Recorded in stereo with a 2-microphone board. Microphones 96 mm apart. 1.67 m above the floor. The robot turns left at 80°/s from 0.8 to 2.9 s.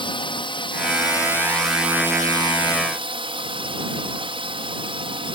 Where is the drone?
70° left; by 5.3 s 95° right.